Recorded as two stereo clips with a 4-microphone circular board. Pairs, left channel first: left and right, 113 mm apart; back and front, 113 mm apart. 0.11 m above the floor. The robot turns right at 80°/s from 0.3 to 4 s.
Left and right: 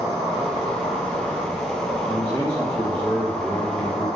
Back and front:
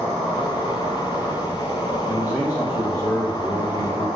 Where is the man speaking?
40° left, 1.5 m; by 4.1 s 170° right, 1.5 m.